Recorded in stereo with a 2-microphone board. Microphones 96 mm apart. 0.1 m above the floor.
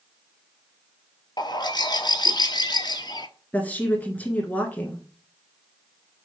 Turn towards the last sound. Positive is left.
turn(degrees=15)  # may be behind; listen again after turning